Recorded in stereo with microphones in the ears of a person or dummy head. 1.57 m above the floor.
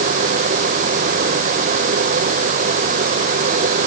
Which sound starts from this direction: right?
A fan, at 0.0 s.